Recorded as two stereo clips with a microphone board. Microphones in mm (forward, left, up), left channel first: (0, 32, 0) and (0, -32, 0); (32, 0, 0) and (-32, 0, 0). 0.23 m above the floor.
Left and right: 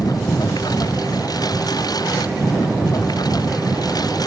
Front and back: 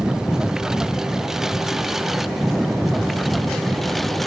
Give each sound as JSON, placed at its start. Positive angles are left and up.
{"t": 0.0, "sound": "a lawn mower", "azimuth_deg": 100}